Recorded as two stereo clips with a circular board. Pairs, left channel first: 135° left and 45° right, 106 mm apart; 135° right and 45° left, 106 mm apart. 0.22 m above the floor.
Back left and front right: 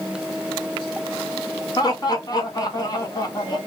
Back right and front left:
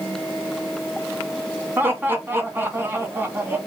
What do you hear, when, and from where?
1.8 s laughter: 105° left, 1.6 m